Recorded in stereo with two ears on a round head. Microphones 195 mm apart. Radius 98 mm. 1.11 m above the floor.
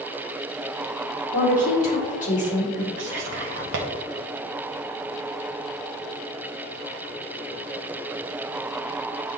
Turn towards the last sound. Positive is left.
turn(degrees=-55)  # may be behind; listen again after turning